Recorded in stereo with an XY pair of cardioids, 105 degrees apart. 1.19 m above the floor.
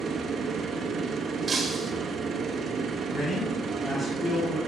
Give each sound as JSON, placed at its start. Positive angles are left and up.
{"t": 0.0, "sound": "a machine running", "azimuth_deg": -55, "distance_m": 0.9}
{"t": 1.5, "sound": "breaking glass", "azimuth_deg": -35, "distance_m": 1.2}
{"t": 3.1, "sound": "a man speaking", "azimuth_deg": 30, "distance_m": 2.0}